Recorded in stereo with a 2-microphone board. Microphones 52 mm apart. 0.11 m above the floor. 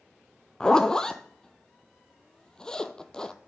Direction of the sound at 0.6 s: 15° left (ahead or behind).